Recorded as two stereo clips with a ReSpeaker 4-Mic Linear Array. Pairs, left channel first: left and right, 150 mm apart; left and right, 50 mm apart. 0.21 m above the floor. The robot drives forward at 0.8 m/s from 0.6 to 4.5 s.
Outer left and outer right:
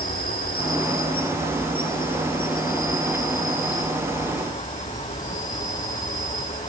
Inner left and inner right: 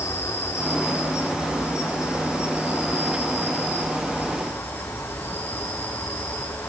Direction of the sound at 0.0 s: 75° left (ahead or behind).